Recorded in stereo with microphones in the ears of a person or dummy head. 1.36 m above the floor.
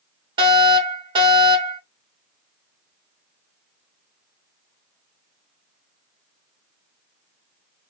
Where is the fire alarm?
20° right (ahead or behind), 3 m.